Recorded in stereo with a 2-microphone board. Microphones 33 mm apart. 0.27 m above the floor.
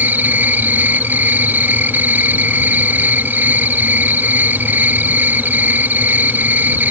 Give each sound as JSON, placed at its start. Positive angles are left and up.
{"t": 0.0, "sound": "an insect", "side_deg": -70}